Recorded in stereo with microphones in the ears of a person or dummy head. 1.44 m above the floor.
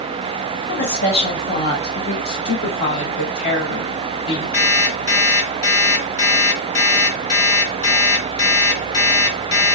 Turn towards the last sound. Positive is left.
turn(degrees=55)  # may be behind; listen again after turning